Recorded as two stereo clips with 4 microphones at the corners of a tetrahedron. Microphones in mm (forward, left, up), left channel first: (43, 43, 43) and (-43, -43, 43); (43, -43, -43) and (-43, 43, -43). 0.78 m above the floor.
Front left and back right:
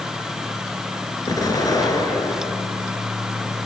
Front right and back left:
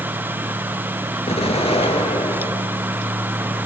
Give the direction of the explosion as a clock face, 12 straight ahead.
12 o'clock.